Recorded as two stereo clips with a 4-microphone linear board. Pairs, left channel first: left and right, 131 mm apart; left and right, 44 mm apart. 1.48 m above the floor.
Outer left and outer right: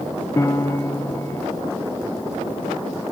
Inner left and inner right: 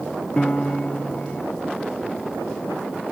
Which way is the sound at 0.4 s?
25° left (ahead or behind).